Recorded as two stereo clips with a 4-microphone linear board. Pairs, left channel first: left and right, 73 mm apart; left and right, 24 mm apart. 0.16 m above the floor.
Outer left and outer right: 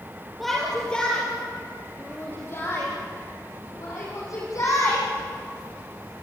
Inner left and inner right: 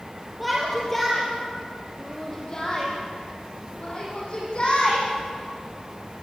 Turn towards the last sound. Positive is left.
turn(degrees=50)  # may be behind; listen again after turning